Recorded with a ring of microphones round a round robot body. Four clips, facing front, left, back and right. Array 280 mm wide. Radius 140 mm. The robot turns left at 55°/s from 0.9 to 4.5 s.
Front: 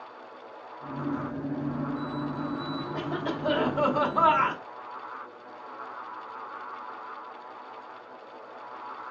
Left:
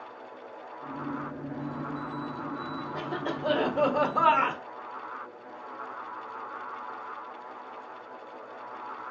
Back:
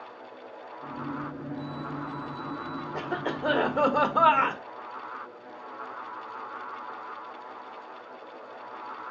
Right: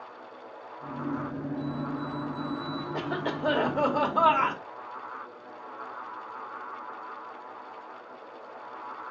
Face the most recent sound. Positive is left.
turn(degrees=150)